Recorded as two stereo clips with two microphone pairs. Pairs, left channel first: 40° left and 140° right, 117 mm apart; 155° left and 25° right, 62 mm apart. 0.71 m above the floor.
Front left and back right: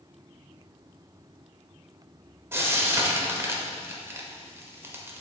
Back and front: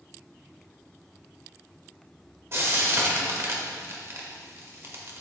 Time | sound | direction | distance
2.5 | frying | 70° right | 1.2 m